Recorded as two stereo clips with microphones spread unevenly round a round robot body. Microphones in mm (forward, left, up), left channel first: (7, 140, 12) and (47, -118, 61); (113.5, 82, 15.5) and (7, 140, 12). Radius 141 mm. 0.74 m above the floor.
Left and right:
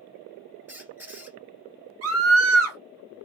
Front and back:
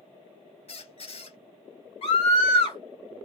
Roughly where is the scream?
Ahead right.